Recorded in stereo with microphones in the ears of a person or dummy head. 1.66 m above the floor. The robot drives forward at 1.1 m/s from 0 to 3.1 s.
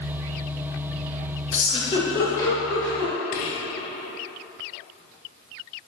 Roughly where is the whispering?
Left.